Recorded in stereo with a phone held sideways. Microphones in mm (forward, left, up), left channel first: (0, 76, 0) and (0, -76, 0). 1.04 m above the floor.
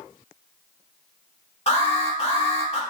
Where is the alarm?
40° left (ahead or behind), 1.2 m.